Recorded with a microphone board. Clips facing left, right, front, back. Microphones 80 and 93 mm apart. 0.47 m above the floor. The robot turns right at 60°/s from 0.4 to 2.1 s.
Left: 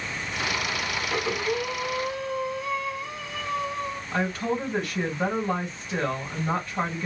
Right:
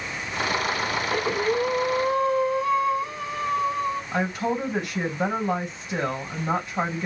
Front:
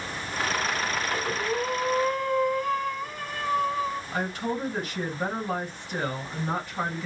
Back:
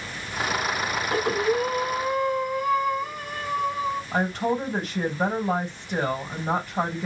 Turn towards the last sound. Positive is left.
turn(degrees=-160)